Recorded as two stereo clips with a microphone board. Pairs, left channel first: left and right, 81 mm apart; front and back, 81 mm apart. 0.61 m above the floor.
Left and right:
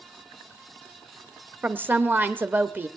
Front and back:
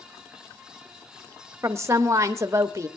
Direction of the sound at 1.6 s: 145° right.